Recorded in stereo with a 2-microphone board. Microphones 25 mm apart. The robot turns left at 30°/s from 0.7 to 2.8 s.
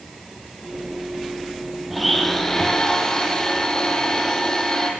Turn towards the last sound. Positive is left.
turn(degrees=20)  # may be behind; listen again after turning